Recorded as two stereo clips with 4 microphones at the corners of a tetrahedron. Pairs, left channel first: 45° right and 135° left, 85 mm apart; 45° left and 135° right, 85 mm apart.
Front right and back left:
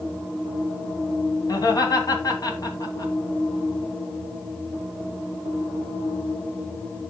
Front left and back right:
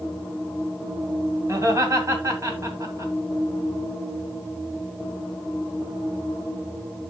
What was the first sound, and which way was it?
Laughter, 85° right.